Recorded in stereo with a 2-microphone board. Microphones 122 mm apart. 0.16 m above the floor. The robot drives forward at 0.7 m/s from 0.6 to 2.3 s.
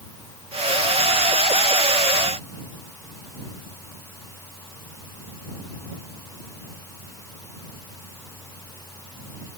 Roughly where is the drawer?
I don't hear a drawer.